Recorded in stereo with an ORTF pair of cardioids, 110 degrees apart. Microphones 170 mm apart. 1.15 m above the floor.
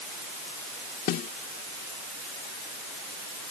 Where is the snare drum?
65° left.